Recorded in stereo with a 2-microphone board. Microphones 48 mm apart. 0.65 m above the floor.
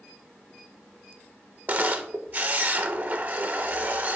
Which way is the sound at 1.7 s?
40° right (ahead or behind).